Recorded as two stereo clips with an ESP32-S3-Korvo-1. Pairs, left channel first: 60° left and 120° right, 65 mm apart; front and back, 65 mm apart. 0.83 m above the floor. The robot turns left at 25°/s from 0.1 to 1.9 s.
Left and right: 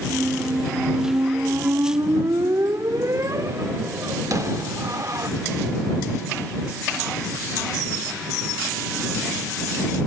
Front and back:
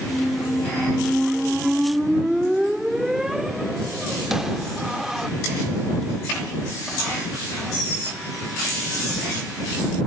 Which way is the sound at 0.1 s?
50° right.